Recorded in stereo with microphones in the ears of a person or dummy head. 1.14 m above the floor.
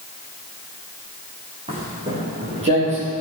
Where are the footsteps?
30° right (ahead or behind), 4 m; by 3.1 s 40° right (ahead or behind), 2.5 m.